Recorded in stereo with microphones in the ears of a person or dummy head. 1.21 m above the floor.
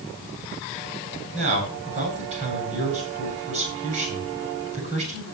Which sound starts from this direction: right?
A man speaking, at 1.3 s.